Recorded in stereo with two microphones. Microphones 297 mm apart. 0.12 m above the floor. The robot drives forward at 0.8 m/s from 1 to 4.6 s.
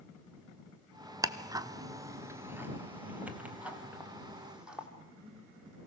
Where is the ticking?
10° right (ahead or behind), 0.7 m; by 4.9 s 5° right (ahead or behind), 2.5 m.